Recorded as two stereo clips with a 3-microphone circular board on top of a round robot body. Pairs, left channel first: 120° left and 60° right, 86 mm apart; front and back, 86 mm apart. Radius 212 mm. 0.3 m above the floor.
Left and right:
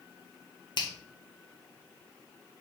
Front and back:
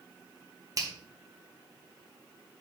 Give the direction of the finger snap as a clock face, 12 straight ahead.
7 o'clock.